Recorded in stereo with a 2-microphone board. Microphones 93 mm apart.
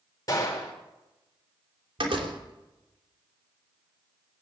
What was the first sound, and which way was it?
A gunshot, 40° left (ahead or behind).